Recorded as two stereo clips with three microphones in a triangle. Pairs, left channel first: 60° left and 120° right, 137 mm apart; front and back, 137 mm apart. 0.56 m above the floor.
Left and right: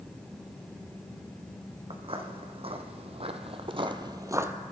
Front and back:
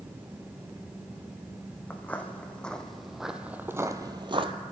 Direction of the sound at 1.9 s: 75° right.